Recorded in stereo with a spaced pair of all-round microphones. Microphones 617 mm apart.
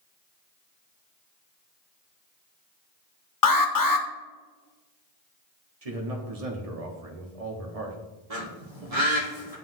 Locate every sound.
3.4 s an alarm: 35° left (ahead or behind), 0.7 m
5.8 s a man speaking: 70° right (ahead or behind), 1.3 m
8.3 s a bird: 70° right (ahead or behind), 1.6 m